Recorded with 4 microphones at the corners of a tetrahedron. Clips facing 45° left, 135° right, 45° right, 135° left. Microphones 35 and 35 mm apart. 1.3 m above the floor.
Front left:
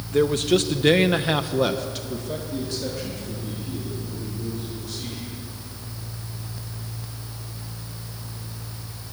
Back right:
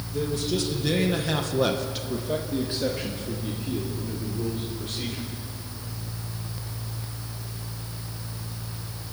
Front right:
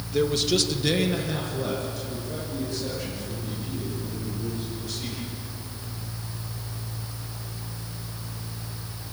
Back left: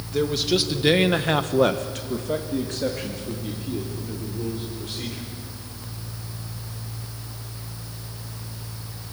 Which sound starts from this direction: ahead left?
A man speaking, at 0.1 s.